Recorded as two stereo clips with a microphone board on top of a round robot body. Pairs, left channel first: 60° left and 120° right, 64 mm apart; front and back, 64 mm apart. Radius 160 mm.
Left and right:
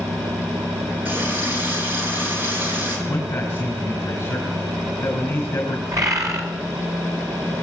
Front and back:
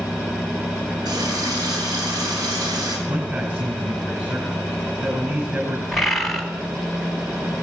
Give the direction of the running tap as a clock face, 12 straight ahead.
6 o'clock.